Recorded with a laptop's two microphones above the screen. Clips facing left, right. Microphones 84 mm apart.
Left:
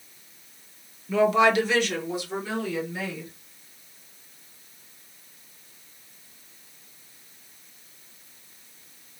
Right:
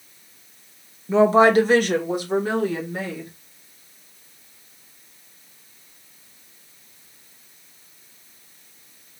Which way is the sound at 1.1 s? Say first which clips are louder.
Right 5 dB; 25° right (ahead or behind).